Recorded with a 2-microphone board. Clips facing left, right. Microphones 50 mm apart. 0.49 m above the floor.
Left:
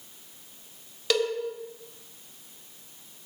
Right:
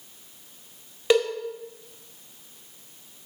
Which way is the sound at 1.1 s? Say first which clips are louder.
Right 5 dB; 25° right (ahead or behind).